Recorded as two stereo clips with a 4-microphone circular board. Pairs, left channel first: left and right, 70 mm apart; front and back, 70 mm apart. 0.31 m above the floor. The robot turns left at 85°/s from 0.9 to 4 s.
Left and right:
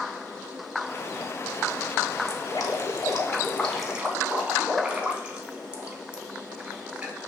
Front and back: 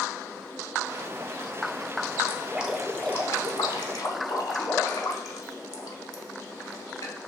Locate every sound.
2.3 s dripping: 130° left, 0.6 m; by 7.2 s 15° right, 0.6 m